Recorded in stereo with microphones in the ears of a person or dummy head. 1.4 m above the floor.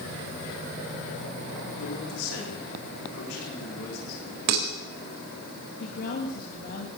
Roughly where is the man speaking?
Left.